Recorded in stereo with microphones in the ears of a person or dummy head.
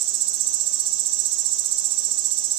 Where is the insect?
30° right (ahead or behind), 0.9 m.